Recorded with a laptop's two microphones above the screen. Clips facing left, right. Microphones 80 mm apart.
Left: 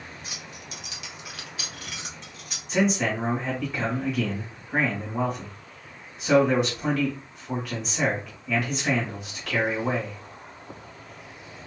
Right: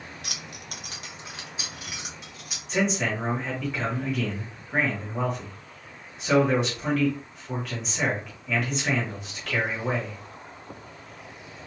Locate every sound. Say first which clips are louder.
0.2 s keys jangling: right 1 dB; 75° right (ahead or behind), 0.5 m; by 2.6 s 5° right (ahead or behind), 1.3 m
2.7 s a man speaking: left 2 dB; centre (ahead or behind), 1.5 m